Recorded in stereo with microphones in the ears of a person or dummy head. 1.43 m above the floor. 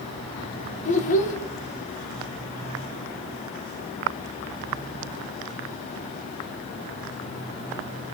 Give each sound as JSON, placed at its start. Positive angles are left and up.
{"t": 0.8, "sound": "a child speaking", "side_deg": 40, "distance_m": 0.8}